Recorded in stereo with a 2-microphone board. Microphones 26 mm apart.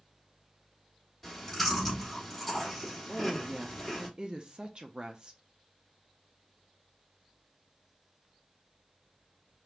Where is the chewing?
5° left (ahead or behind), 2.5 m.